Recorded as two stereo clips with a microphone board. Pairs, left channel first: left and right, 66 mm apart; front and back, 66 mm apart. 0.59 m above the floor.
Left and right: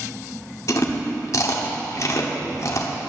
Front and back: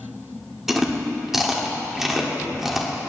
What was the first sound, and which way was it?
Chewing, 95° left.